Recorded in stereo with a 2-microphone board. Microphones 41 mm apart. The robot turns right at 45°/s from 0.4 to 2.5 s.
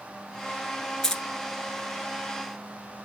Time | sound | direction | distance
1.0 | keys jangling | 10° left (ahead or behind) | 1.1 m